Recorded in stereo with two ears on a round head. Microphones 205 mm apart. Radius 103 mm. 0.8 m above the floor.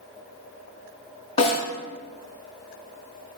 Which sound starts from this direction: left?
A snare drum, at 1.4 s.